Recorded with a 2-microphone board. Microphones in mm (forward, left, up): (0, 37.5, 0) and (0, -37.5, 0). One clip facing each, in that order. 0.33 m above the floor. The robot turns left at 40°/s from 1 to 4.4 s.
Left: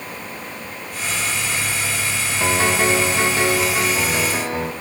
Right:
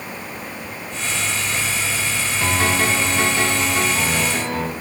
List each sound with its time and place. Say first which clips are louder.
2.4 s a piano: left 2 dB; 20° left (ahead or behind), 1.3 m